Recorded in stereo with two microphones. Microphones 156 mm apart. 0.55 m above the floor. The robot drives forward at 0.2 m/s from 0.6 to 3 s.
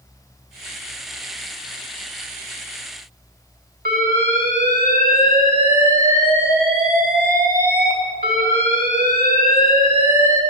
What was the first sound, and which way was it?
An alarm, 70° right (ahead or behind).